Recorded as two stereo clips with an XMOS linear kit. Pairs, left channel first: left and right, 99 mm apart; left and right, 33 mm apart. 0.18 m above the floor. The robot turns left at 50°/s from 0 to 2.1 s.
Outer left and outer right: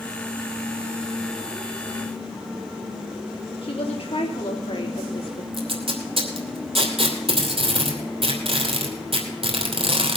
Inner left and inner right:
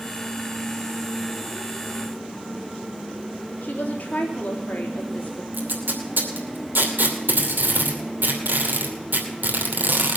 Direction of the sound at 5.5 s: 75° right (ahead or behind).